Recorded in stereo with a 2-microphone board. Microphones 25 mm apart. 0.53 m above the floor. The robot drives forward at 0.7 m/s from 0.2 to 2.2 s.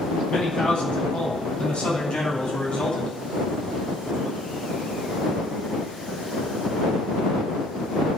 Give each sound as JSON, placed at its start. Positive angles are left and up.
{"t": 0.3, "sound": "a man speaking", "side_deg": 45, "distance_m": 5.0}